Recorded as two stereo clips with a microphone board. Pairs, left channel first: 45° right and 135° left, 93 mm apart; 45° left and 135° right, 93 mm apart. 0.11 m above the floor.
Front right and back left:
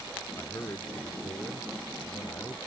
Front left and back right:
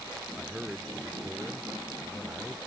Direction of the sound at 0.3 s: 60° right.